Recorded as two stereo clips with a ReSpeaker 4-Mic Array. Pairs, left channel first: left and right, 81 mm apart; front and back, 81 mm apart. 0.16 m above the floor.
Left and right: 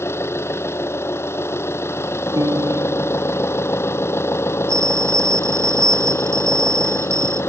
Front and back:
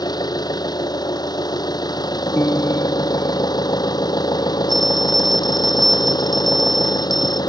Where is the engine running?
30° left.